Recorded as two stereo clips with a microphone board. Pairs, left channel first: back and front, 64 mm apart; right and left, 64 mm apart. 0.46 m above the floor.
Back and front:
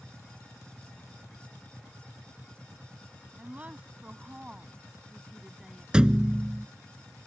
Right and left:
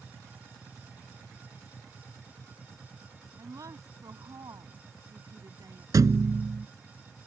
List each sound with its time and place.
3.4 s a woman speaking: 60° left; by 5.8 s 85° left
5.9 s a thud: 75° left